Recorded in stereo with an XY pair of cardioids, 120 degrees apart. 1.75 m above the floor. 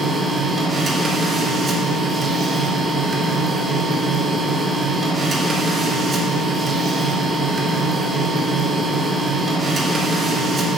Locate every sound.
0.0 s a machine running: 30° right, 1.2 m